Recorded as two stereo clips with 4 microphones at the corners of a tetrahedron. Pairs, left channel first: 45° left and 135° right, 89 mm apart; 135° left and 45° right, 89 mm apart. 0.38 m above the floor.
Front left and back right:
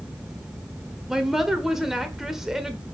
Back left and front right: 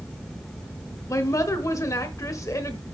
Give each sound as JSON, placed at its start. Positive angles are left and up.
{"t": 1.1, "sound": "a woman speaking", "azimuth_deg": 140, "distance_m": 1.2}